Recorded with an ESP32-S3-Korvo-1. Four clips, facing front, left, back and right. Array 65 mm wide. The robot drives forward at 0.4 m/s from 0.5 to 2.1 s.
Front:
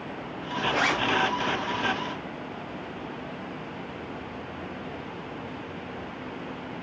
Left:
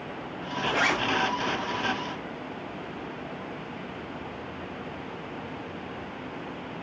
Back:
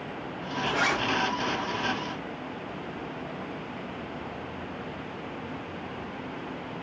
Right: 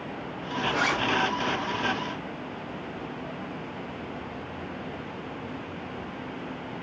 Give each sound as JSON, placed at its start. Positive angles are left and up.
{"t": 0.7, "sound": "a zipper", "azimuth_deg": 50, "distance_m": 0.7}